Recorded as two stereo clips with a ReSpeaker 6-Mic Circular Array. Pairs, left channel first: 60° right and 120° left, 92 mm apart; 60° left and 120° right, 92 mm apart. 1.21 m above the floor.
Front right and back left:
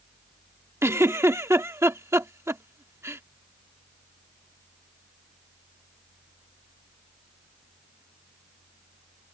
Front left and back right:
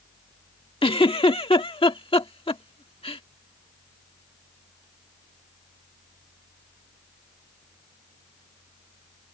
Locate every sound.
0.8 s a giggle: 60° left